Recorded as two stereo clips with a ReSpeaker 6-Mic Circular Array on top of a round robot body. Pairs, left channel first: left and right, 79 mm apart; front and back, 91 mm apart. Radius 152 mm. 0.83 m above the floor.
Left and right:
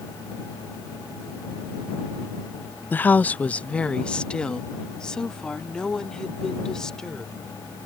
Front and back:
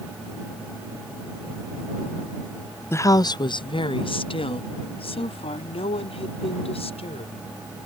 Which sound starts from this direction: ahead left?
A woman speaking, at 2.9 s.